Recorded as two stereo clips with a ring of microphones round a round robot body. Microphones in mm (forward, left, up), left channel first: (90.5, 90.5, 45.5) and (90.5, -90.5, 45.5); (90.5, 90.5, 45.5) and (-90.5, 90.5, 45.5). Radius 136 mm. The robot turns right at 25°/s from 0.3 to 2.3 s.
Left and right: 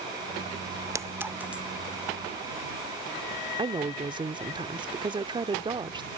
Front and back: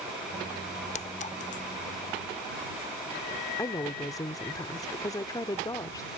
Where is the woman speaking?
55° right.